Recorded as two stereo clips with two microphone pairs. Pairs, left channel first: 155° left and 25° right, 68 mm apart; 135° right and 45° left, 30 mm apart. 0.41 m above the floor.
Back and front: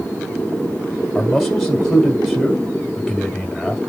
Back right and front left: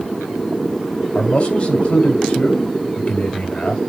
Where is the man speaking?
110° right, 1.7 m.